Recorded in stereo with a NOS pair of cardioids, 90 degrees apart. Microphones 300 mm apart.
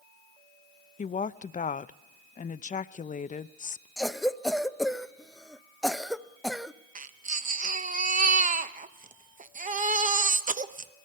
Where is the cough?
Straight ahead, 0.7 m.